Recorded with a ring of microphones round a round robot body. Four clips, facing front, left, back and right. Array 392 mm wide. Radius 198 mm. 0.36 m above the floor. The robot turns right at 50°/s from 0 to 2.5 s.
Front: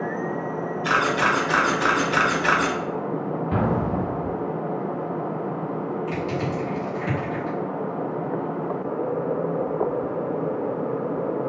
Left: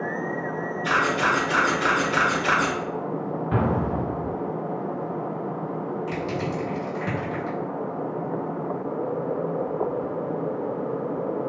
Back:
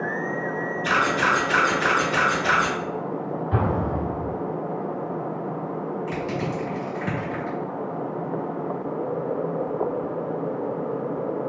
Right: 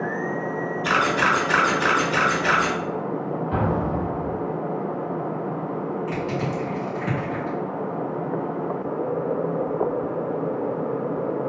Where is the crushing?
95° left, 1.9 m.